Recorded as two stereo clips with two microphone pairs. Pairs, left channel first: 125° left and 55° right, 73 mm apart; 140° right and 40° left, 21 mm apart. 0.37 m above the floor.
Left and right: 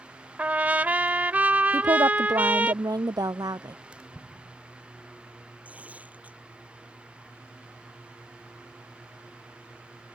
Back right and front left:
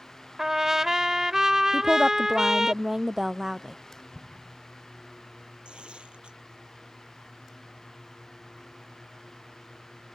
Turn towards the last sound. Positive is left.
turn(degrees=15)